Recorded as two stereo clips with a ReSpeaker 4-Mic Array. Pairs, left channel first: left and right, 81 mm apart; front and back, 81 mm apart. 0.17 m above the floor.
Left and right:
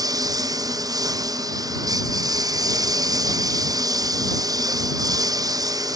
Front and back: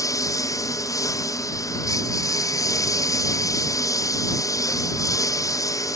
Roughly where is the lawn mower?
Ahead right.